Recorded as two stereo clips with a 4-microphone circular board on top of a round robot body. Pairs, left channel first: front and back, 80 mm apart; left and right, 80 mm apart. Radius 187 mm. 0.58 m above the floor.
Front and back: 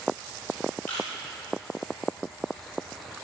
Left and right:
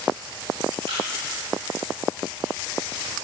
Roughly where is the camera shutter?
Ahead right.